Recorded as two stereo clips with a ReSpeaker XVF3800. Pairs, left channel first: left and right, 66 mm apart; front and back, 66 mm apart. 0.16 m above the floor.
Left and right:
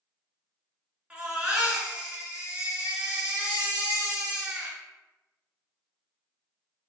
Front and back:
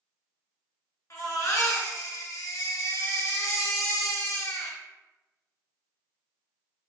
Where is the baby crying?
25° right, 0.8 m.